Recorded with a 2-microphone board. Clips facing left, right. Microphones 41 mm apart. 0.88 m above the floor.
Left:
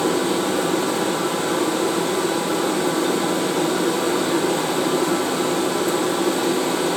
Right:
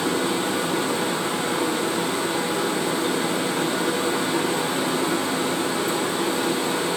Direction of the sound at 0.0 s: 55° left (ahead or behind).